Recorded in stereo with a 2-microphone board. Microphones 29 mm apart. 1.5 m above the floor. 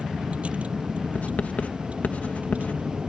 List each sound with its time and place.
0.0 s a vehicle: 50° right (ahead or behind)
1.1 s writing: 60° left (ahead or behind)